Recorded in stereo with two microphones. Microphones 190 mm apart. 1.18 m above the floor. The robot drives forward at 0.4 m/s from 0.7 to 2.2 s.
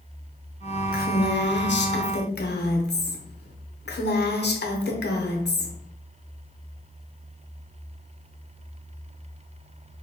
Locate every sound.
0.9 s a woman speaking: 55° left (ahead or behind), 0.6 m; by 5.8 s 65° left (ahead or behind), 0.5 m